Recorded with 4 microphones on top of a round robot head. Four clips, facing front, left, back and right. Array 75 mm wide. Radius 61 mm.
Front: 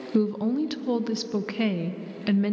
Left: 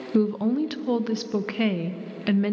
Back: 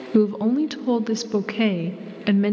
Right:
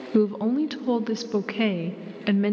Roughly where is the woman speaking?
Behind.